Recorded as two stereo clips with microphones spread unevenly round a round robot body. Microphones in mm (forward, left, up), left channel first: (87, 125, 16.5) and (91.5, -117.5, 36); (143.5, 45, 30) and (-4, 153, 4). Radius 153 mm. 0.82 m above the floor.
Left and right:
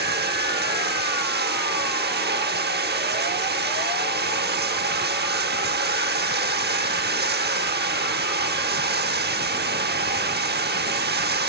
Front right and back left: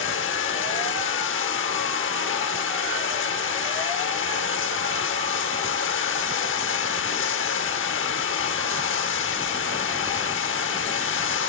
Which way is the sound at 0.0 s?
40° right.